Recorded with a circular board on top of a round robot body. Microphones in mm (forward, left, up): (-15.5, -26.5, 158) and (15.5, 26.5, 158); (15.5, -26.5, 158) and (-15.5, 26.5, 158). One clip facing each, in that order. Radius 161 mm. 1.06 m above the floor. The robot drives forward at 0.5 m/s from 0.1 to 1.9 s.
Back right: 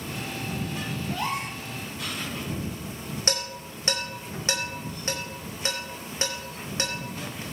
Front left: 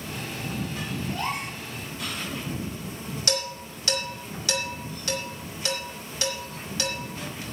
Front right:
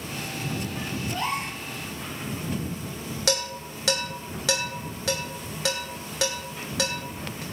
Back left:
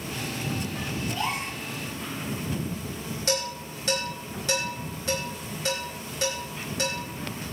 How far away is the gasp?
About 3.5 m.